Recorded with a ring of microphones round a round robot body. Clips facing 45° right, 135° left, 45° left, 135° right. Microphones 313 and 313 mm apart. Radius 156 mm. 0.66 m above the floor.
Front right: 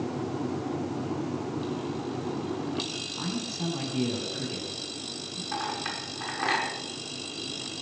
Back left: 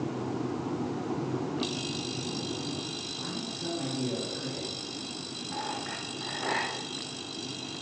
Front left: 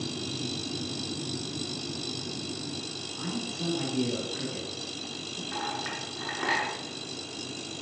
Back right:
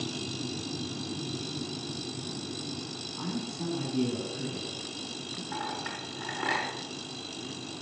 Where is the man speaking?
55° right, 8.5 m.